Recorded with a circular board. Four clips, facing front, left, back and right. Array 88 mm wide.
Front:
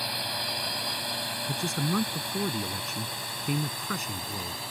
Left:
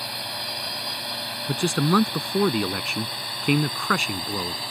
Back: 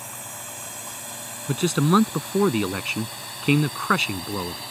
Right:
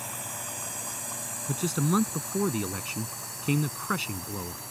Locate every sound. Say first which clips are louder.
0.0 s a drone: left 5 dB, front 5 dB; 45° left; by 4.7 s 95° left
1.5 s a man speaking: left 6 dB, back 11 dB; 145° left